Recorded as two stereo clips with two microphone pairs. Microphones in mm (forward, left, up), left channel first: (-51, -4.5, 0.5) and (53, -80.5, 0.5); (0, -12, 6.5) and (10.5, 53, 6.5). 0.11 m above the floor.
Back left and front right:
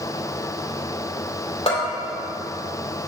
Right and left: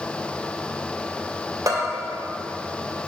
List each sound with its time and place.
1.7 s a bell: 110° left, 2.0 m